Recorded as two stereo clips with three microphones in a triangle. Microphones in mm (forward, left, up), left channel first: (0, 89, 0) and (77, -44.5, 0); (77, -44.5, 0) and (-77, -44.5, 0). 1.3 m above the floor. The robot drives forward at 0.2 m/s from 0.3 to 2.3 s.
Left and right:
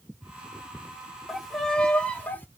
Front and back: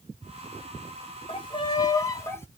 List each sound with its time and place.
1.3 s a violin: 30° left, 0.6 m; by 2.5 s 50° left, 0.5 m